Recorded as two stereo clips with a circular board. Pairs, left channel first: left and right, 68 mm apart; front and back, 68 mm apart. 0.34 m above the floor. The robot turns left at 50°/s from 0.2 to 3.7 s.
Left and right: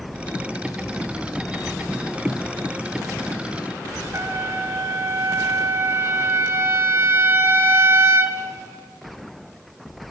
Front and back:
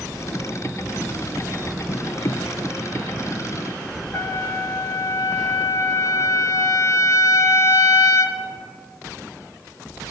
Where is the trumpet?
40° right, 1.0 m.